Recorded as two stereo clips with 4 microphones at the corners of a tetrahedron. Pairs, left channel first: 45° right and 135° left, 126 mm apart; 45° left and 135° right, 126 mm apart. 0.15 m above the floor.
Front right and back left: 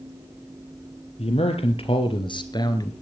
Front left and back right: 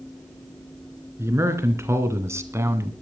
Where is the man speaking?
70° right, 3 m; by 2.9 s 80° right, 1.7 m.